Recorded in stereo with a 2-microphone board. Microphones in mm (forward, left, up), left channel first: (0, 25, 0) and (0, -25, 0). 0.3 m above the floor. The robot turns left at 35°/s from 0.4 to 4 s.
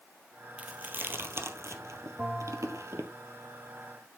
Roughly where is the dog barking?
I don't hear a dog barking.